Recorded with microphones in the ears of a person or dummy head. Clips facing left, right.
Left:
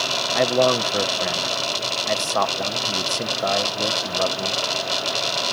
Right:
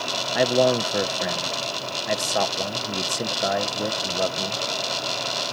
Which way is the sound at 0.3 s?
5° right (ahead or behind).